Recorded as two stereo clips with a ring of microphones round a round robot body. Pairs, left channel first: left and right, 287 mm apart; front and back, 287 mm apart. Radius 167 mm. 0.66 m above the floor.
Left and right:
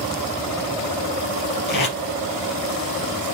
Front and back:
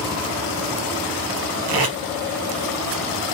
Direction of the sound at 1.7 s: 145° left.